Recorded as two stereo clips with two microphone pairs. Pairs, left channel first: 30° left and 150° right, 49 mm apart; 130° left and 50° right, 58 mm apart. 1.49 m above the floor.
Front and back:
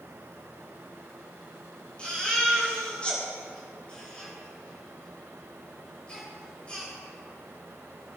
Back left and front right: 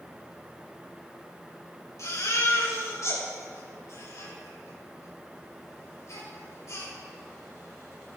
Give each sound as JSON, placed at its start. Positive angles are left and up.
{"t": 2.0, "sound": "a baby crying", "azimuth_deg": 100, "distance_m": 4.5}